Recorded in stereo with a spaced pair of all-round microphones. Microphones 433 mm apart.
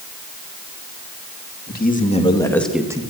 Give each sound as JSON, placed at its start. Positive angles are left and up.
{"t": 1.7, "sound": "a man speaking", "side_deg": 20, "distance_m": 3.0}